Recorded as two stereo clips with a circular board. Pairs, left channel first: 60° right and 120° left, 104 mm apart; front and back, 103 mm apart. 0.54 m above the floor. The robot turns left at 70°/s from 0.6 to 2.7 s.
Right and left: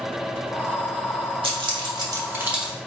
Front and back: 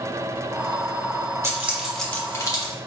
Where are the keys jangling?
125° left, 1.1 m; by 2.7 s 35° left, 1.1 m.